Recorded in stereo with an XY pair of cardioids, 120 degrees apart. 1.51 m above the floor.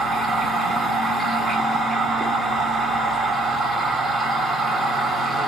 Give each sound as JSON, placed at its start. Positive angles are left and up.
{"t": 0.0, "sound": "a machine running", "azimuth_deg": -15, "distance_m": 2.5}